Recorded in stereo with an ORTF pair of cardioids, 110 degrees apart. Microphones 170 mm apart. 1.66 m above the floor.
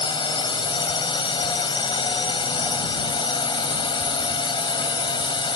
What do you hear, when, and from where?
0.0 s a drone: 30° left